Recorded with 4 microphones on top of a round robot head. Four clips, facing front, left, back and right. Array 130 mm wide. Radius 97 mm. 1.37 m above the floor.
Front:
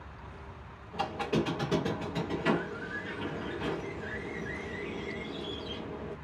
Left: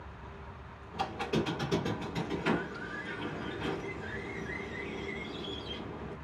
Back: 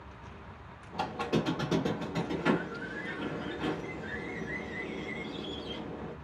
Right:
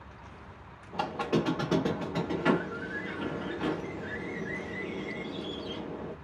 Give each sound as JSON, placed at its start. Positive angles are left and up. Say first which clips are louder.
{"t": 0.9, "sound": "a squeak", "louder": "right 3 dB, front 1 dB", "azimuth_deg": -105, "distance_m": 0.6}